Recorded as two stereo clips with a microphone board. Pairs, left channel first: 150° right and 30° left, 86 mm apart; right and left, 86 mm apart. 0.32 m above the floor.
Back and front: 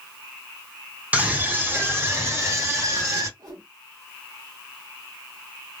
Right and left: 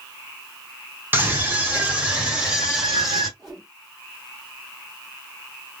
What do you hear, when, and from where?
1.1 s a scream: 75° left, 1.6 m; by 3.3 s 5° left, 2 m
3.4 s a whoosh: straight ahead, 2.5 m